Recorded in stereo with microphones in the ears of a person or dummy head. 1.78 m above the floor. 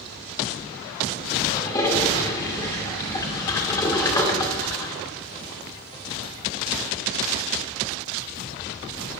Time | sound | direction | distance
1.5 | a toilet flushing | 20° left (ahead or behind) | 2 m